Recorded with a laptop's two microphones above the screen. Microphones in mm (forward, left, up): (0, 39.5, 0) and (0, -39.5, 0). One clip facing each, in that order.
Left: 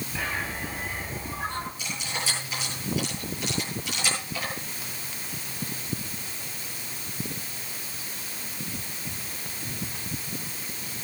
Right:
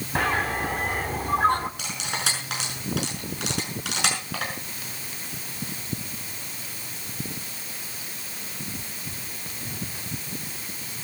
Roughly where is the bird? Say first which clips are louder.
Right 8 dB; right.